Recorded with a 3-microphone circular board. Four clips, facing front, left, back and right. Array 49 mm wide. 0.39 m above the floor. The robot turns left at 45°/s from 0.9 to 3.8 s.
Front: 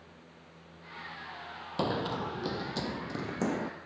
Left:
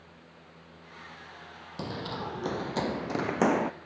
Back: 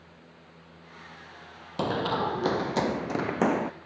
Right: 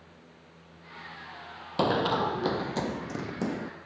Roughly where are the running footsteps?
Right.